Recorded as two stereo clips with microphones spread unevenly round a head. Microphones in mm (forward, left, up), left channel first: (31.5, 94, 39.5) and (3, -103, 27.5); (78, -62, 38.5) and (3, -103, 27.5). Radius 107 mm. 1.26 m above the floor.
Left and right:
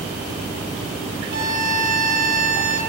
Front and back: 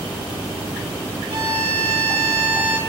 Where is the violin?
150° right, 2.5 m.